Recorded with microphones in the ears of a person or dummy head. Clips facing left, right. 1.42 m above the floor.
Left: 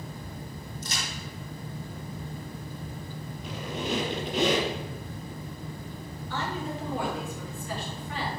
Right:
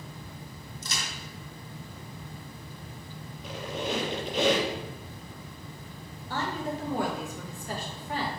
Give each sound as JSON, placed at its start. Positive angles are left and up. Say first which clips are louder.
{"t": 0.8, "sound": "a crack", "louder": "even", "side_deg": -65, "distance_m": 3.0}
{"t": 3.4, "sound": "a squeak", "louder": "even", "side_deg": 40, "distance_m": 4.0}
{"t": 6.3, "sound": "a woman speaking", "louder": "right 1 dB", "side_deg": -35, "distance_m": 1.9}